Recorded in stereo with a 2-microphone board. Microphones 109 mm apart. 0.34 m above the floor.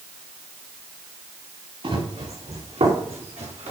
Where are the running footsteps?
60° right (ahead or behind), 2.5 m; by 3.7 s 80° right, 3.5 m.